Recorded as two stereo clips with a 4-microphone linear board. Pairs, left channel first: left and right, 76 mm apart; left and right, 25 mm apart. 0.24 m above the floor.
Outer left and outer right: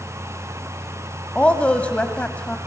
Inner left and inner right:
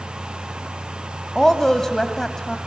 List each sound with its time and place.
1.4 s a woman speaking: 20° left (ahead or behind), 1.2 m